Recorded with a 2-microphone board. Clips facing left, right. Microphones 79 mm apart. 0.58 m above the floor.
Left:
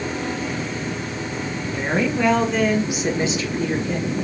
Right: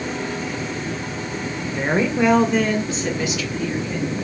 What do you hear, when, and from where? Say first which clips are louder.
1.7 s a woman speaking: right 1 dB; 30° right (ahead or behind), 1.6 m; by 4.1 s 60° left (ahead or behind), 1.4 m